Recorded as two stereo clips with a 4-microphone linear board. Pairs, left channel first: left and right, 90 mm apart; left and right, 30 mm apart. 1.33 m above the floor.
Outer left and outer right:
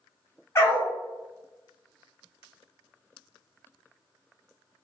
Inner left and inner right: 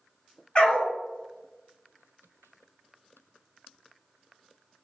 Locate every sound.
0.6 s a dog barking: 30° left (ahead or behind), 1.2 m